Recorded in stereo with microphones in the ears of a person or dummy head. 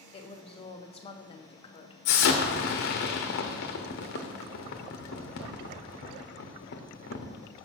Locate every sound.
0.1 s a woman speaking: 35° left (ahead or behind), 0.7 m
2.0 s an explosion: 55° left (ahead or behind), 0.9 m